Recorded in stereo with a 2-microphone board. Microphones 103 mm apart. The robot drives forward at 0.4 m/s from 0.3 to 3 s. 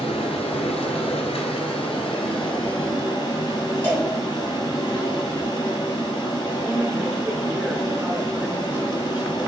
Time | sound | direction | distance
0.0 | running water | 75° left (ahead or behind) | 1.0 m
3.8 | a cowbell | 15° left (ahead or behind) | 1.7 m
6.6 | a woman speaking | 15° right (ahead or behind) | 0.8 m